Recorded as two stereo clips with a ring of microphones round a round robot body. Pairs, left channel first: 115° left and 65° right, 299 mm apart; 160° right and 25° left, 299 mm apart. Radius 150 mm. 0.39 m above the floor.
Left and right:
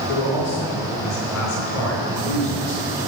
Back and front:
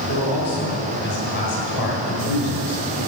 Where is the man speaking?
150° left, 5 m.